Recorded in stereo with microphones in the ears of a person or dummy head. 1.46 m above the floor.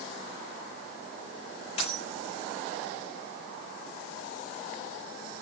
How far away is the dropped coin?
About 8 m.